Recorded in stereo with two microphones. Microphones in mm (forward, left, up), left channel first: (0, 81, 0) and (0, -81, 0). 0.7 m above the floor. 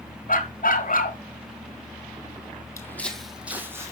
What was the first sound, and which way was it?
A dog barking, 60° left (ahead or behind).